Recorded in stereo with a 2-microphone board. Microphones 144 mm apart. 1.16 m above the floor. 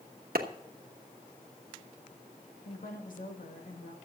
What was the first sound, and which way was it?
A clap, 85° right.